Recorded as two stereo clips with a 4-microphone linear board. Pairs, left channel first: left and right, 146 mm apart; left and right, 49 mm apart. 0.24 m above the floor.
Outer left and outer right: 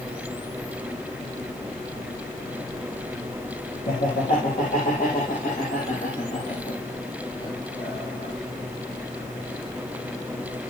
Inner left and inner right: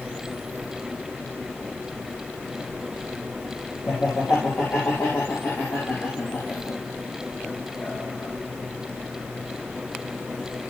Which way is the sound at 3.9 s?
75° left (ahead or behind).